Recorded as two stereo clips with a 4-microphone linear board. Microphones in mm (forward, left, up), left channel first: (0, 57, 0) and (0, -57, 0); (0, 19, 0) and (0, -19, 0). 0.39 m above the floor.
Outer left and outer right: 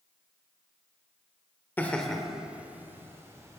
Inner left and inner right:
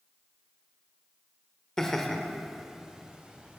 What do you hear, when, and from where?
1.8 s laughter: 15° left (ahead or behind), 1.1 m; by 3.6 s 25° right (ahead or behind), 2.5 m